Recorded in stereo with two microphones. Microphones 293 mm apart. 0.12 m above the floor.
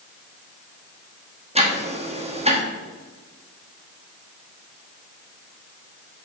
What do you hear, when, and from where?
1.6 s ticking: 20° right (ahead or behind), 1.2 m